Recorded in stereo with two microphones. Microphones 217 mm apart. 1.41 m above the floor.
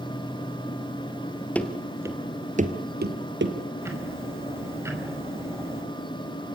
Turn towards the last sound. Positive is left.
turn(degrees=-10)  # may be behind; listen again after turning